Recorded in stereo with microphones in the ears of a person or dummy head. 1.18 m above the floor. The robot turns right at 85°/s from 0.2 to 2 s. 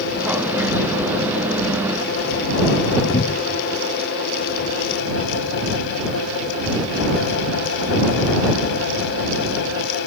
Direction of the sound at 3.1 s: 50° left (ahead or behind).